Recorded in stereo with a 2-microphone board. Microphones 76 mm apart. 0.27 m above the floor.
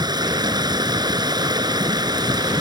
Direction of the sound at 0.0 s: 70° right (ahead or behind).